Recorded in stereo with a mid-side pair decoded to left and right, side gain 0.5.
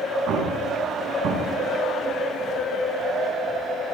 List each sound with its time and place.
0.3 s an explosion: 65° right, 7.5 m